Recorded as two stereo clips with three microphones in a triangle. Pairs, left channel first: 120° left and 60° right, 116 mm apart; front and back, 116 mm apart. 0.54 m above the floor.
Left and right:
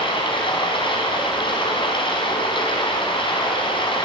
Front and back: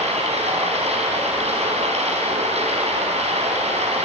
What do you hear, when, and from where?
0.0 s running water: 160° left, 4 m